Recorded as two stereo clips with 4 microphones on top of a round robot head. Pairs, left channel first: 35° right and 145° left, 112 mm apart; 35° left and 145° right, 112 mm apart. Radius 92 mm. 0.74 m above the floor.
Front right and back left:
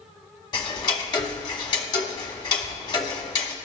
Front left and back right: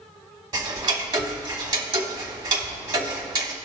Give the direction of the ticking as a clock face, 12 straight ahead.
3 o'clock.